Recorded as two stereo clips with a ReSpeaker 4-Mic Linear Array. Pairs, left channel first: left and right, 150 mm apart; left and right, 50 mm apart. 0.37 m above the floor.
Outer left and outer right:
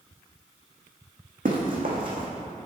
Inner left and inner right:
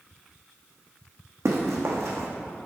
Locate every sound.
1.4 s running footsteps: 80° right, 1.6 m